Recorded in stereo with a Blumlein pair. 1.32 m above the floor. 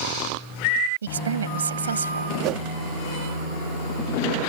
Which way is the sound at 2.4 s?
40° right.